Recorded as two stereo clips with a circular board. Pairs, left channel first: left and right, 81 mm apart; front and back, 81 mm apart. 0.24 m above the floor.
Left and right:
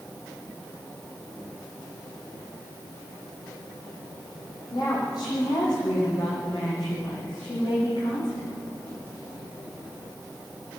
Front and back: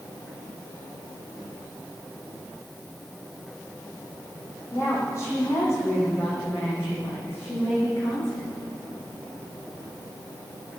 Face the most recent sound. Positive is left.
turn(degrees=60)